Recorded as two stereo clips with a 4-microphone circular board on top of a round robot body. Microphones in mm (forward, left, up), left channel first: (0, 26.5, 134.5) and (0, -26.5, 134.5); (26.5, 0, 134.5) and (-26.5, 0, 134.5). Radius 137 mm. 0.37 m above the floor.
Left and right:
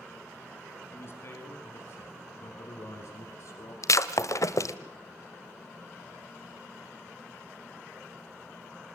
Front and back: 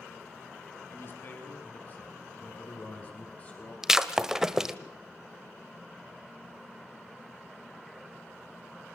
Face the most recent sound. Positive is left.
turn(degrees=100)